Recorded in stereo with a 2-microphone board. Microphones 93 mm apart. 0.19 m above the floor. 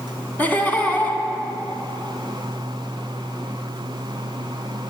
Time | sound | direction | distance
0.4 | laughter | 20° left (ahead or behind) | 1.9 m